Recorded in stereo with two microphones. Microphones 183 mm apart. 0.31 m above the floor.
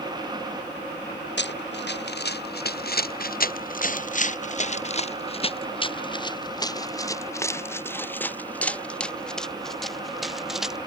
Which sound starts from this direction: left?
Running footsteps, at 1.4 s.